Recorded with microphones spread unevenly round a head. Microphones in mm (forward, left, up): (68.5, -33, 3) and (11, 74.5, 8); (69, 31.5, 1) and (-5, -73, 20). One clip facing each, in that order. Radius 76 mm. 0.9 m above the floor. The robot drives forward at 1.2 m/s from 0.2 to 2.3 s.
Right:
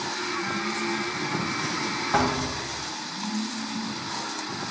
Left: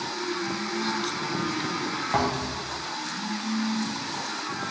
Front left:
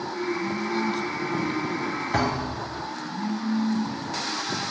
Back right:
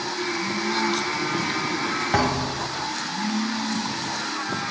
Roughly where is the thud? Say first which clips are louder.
Right 2 dB, back right 3 dB; behind.